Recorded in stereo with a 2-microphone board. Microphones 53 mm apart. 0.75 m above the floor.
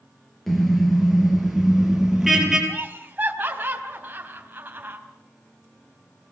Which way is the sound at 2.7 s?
35° right (ahead or behind).